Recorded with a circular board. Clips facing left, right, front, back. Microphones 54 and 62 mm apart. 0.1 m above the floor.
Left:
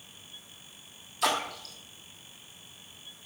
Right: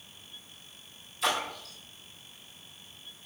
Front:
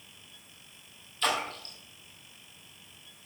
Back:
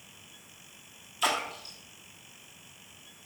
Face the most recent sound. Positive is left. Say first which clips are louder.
# left 1 dB, even
turn(degrees=100)